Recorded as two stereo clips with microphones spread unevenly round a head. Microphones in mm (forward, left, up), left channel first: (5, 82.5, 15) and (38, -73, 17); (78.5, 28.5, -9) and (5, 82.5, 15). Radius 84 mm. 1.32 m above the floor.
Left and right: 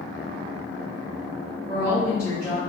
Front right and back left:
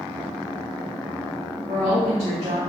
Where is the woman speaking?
175° left, 0.7 m.